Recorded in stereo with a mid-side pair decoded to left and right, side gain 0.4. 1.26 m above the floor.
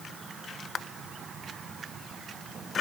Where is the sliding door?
No sliding door in this recording.